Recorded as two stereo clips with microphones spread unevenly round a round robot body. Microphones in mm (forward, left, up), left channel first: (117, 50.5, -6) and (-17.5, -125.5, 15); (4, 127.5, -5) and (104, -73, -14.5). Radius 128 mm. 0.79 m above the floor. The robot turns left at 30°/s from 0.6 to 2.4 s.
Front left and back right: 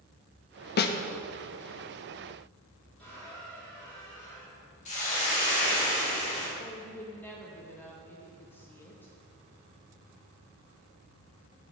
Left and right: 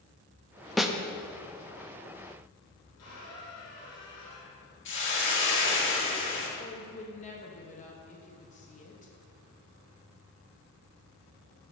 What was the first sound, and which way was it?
A snare drum, 25° left.